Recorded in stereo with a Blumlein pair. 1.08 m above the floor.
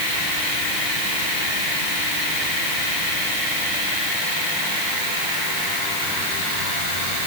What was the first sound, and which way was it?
Only background noise.